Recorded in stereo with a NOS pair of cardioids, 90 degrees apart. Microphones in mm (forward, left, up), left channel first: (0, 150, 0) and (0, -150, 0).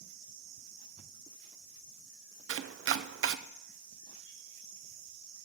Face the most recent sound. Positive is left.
turn(degrees=-45)